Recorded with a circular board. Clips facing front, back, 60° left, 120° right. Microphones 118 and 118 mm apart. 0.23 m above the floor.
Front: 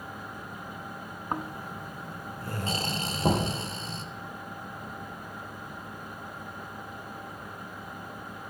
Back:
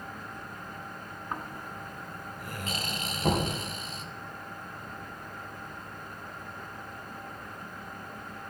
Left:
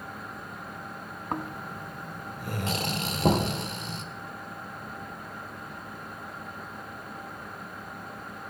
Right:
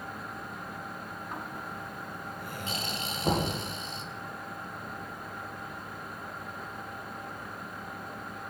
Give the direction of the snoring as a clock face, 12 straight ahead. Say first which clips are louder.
Front 4 dB, left 7 dB; 10 o'clock.